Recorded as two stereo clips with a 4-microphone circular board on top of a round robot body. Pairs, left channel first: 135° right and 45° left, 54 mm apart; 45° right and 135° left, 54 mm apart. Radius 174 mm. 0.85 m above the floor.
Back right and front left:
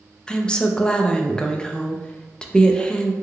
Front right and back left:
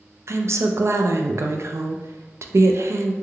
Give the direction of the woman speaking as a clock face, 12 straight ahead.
7 o'clock.